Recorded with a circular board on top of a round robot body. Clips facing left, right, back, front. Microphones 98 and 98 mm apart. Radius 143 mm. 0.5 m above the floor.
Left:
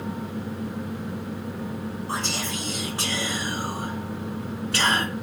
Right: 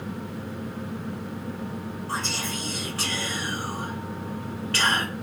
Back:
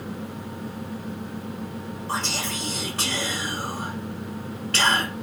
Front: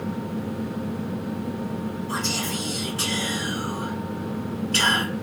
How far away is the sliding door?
No sliding door in this recording.